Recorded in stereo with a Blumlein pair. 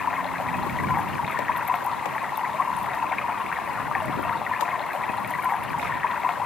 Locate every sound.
0.0 s running water: 20° left